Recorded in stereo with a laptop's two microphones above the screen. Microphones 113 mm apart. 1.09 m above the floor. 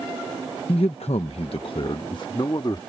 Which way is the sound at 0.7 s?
55° left (ahead or behind).